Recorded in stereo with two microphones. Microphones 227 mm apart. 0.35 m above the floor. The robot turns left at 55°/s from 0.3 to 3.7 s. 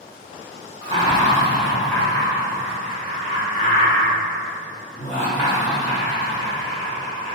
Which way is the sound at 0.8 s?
25° right (ahead or behind).